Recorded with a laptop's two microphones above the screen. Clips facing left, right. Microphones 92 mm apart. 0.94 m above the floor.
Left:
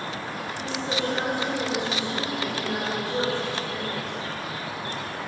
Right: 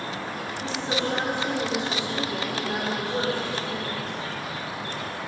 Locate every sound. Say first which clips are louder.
0.6 s a woman speaking: even; 30° right (ahead or behind), 2.5 m; by 4.0 s 10° right (ahead or behind), 4 m